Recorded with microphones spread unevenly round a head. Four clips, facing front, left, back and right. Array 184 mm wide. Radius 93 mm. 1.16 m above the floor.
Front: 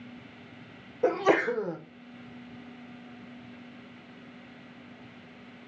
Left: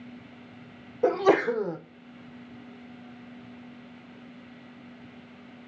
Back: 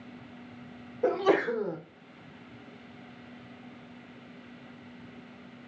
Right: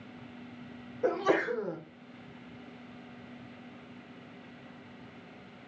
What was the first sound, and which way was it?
A sneeze, 75° left.